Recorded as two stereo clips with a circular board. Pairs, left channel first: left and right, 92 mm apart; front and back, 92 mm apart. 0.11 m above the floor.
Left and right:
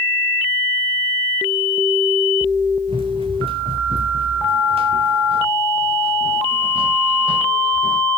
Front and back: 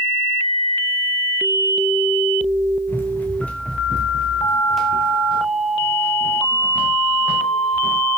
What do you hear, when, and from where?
2.9 s running footsteps: 70° right, 4 m; by 8.0 s 115° right, 6 m